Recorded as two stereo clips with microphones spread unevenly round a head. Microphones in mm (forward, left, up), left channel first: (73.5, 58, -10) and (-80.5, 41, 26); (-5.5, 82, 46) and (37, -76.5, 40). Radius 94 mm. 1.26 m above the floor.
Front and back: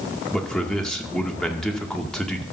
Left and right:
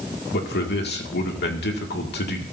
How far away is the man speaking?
About 2 m.